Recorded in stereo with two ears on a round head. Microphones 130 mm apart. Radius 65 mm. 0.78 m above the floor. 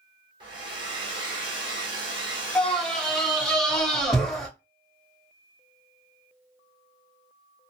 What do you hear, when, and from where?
0.4 s a hair dryer: 35° right (ahead or behind), 1.4 m
2.5 s a scream: 5° left (ahead or behind), 1.1 m